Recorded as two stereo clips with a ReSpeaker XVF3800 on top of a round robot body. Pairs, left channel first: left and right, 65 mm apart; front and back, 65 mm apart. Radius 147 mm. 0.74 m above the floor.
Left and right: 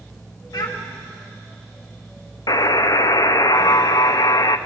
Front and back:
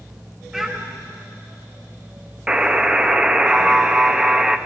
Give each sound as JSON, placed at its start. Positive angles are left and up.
{"t": 0.5, "sound": "a child speaking", "azimuth_deg": 95, "distance_m": 2.5}
{"t": 2.5, "sound": "a buzzer", "azimuth_deg": 105, "distance_m": 0.6}